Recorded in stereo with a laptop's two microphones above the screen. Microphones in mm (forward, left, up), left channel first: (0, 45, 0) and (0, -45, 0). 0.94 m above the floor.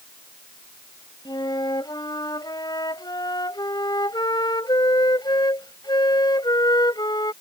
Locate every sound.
1.2 s a flute: 55° left (ahead or behind)